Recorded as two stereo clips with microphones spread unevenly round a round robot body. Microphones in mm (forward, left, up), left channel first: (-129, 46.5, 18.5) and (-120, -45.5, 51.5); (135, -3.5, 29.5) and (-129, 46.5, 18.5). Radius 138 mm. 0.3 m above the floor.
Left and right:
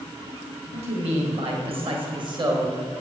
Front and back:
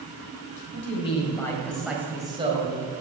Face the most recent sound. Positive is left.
turn(degrees=-150)